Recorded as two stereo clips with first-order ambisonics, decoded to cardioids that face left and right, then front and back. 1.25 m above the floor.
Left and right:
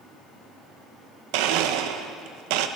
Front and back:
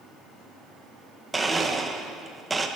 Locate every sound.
1.3 s a blender: 95° right, 0.8 m